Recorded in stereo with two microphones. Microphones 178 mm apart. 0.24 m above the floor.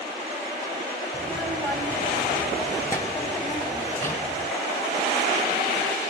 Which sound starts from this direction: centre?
A child speaking, at 1.1 s.